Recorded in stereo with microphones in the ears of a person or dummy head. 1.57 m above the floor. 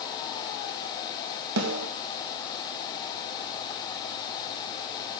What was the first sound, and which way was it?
A snare drum, 90° right.